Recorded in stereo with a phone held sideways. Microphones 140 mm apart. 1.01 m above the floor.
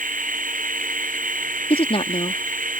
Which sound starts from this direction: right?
A machine running, at 0.0 s.